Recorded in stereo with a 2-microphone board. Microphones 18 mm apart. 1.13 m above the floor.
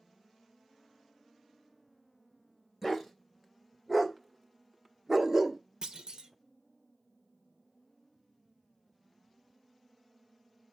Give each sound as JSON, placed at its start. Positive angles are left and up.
{"t": 2.8, "sound": "a dog barking", "side_deg": -5, "distance_m": 2.5}
{"t": 5.8, "sound": "a clunk", "side_deg": -45, "distance_m": 1.2}